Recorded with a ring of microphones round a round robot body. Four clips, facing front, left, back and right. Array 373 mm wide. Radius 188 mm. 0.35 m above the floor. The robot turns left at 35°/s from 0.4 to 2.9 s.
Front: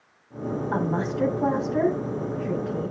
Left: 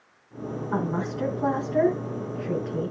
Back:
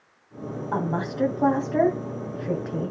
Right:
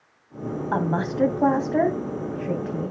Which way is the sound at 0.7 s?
85° right.